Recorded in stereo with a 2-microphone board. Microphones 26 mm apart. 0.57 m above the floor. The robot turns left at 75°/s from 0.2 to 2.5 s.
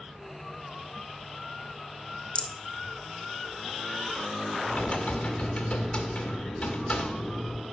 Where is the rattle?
40° left (ahead or behind), 0.5 m; by 2.5 s 30° left (ahead or behind), 0.5 m.